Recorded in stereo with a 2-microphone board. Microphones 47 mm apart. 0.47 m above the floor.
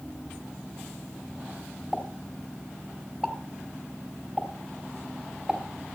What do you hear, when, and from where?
1.9 s a pop: 20° right (ahead or behind), 3 m